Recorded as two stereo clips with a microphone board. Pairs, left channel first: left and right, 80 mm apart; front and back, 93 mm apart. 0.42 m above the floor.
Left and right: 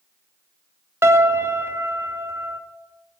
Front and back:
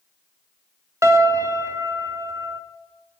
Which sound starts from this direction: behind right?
A piano, at 1.0 s.